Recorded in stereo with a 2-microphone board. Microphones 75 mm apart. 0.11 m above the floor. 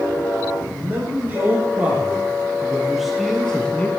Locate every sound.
0.7 s a man speaking: 30° right (ahead or behind), 5 m; by 3.9 s 20° left (ahead or behind), 2 m